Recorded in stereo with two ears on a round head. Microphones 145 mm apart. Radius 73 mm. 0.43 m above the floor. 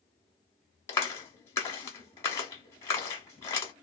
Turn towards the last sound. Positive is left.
turn(degrees=15)  # may be behind; listen again after turning